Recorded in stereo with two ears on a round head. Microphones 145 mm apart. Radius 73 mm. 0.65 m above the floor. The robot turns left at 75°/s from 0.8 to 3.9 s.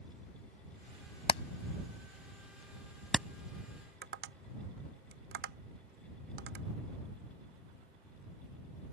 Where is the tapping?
75° right (ahead or behind).